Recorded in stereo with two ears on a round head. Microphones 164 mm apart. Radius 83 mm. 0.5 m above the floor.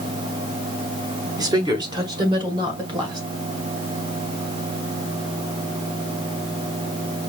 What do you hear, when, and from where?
1.4 s a woman speaking: 20° right (ahead or behind), 1.0 m; by 3.3 s 25° right (ahead or behind), 2.5 m